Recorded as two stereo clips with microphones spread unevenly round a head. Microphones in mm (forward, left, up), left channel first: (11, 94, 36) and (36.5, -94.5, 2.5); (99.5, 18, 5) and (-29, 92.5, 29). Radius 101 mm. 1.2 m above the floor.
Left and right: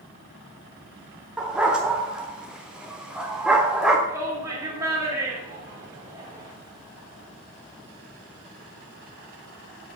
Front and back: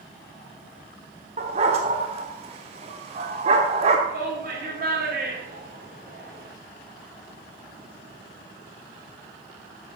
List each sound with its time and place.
1.4 s a dog barking: 175° right, 1.1 m
4.1 s a shout: 160° right, 3 m